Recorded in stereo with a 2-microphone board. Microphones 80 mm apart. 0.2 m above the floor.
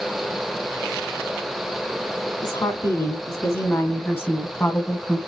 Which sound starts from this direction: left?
A woman speaking, at 2.4 s.